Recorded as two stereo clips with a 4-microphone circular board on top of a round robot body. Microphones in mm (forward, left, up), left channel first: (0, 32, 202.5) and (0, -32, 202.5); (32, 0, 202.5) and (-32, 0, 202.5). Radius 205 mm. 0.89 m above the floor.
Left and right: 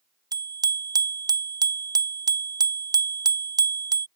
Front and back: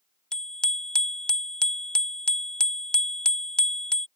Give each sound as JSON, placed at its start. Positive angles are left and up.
{"t": 0.3, "sound": "a bicycle bell", "azimuth_deg": -80}